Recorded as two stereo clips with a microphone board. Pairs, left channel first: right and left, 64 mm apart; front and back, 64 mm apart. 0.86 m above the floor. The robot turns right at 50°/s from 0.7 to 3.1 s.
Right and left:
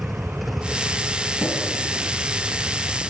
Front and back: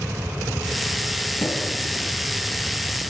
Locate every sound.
1.4 s tapping: straight ahead, 5 m; by 1.5 s 5° left, 5 m